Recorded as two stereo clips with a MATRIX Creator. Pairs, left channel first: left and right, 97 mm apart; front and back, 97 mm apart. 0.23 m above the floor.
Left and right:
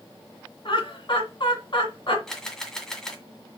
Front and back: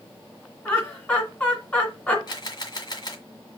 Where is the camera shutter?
10° left, 1.7 m.